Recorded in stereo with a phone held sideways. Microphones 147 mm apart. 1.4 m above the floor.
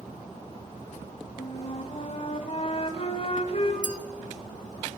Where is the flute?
45° left (ahead or behind), 2.0 m.